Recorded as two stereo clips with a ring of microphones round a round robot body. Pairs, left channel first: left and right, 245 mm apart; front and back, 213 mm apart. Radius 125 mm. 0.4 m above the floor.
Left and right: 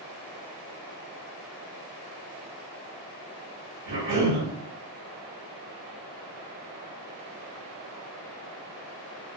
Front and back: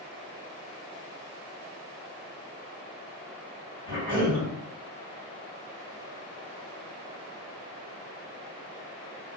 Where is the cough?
115° right, 2.0 m.